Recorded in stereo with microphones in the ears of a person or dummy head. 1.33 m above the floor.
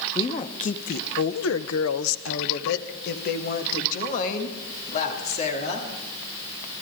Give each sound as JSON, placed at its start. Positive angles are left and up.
{"t": 0.1, "sound": "a woman speaking", "side_deg": 25, "distance_m": 1.1}